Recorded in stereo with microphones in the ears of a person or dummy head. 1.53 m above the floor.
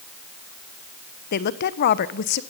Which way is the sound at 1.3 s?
50° left (ahead or behind).